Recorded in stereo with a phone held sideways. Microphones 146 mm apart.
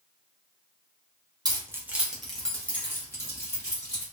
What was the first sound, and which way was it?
Keys jangling, 25° right (ahead or behind).